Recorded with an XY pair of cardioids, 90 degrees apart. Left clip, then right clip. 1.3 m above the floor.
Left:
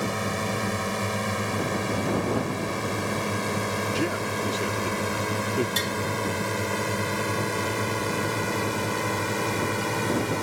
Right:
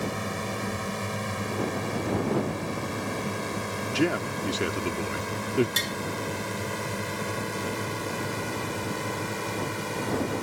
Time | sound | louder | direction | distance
0.0 | a drone | left 4 dB | 25° left | ?
3.9 | a man speaking | even | 40° right | ?
5.8 | tapping | left 1 dB | 20° right | ?